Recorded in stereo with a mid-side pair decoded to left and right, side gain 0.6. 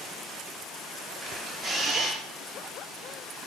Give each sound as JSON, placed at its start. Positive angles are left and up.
{"t": 1.2, "sound": "a camera shutter", "azimuth_deg": -15, "distance_m": 0.9}